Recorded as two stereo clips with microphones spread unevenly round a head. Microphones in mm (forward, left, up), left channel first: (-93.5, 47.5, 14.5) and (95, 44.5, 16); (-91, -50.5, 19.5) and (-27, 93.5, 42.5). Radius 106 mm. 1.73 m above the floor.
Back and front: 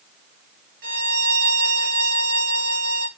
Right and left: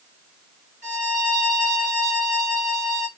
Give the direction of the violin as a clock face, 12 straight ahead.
11 o'clock.